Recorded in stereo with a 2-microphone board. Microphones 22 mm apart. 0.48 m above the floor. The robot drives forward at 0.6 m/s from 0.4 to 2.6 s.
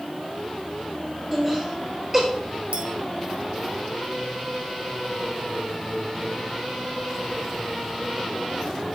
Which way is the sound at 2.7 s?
75° right (ahead or behind).